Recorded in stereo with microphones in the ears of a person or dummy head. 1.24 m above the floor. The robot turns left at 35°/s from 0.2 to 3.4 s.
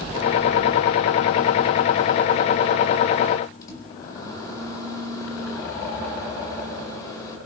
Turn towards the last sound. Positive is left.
turn(degrees=25)  # may be behind; listen again after turning